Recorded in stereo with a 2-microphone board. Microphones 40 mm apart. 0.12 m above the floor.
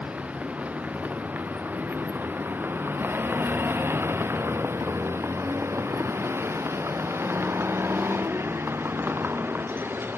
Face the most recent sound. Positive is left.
turn(degrees=-60)  # may be behind; listen again after turning